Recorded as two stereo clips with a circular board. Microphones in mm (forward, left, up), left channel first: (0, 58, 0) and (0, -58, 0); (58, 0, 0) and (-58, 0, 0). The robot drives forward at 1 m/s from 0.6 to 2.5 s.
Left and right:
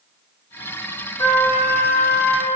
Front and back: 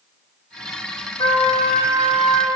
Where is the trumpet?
40° left, 2 m; by 2.5 s 75° left, 1.5 m.